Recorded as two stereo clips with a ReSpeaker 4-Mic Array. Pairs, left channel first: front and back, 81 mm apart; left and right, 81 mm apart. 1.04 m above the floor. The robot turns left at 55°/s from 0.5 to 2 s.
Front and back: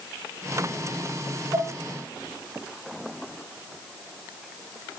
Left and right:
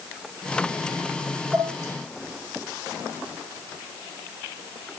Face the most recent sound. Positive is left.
turn(degrees=180)